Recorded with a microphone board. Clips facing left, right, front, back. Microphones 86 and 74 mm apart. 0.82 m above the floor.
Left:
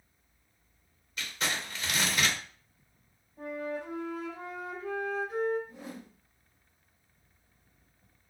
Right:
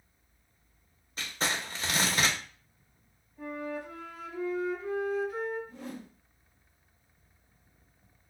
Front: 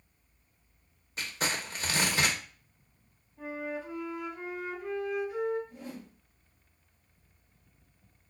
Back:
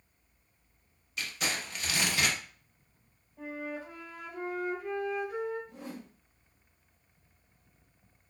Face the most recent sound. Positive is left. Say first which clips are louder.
# right 2 dB, even
turn(degrees=165)